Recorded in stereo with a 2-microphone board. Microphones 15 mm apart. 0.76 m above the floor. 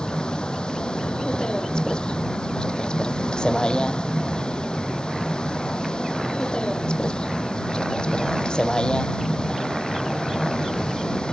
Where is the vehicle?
70° left (ahead or behind).